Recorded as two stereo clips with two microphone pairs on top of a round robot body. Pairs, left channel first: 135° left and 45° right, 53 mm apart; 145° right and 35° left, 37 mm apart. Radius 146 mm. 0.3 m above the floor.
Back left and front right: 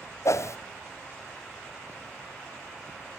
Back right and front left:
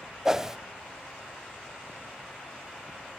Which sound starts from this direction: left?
A whoosh, at 0.2 s.